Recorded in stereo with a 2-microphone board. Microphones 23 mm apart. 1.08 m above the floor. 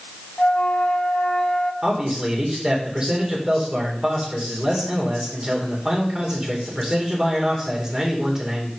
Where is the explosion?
I don't hear an explosion.